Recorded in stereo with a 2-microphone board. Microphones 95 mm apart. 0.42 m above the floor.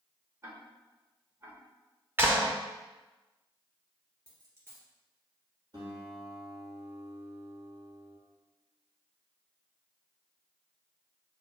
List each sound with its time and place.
0.4 s ticking: 30° right (ahead or behind), 1.1 m
2.2 s a clap: 25° right (ahead or behind), 0.7 m
4.3 s a dropped coin: 30° right (ahead or behind), 1.8 m
5.7 s a guitar: 50° right (ahead or behind), 1.9 m